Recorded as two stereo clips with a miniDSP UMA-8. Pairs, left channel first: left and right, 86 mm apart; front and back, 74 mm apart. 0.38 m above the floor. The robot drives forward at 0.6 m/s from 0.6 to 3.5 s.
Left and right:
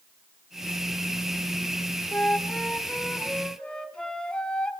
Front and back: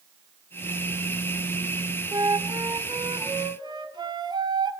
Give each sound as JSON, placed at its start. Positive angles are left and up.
{"t": 2.1, "sound": "a flute", "azimuth_deg": 160, "distance_m": 0.7}